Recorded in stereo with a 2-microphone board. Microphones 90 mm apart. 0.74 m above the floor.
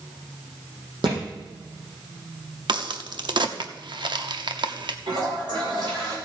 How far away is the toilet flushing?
About 3 m.